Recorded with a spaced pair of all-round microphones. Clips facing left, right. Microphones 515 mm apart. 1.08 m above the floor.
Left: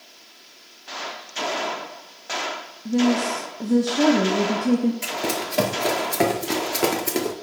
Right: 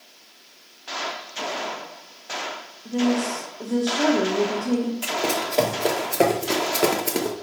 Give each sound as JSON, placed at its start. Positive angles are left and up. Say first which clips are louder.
{"t": 2.9, "sound": "a woman speaking", "louder": "left 2 dB", "side_deg": 45, "distance_m": 0.8}
{"t": 5.0, "sound": "running footsteps", "louder": "right 1 dB", "side_deg": 45, "distance_m": 1.4}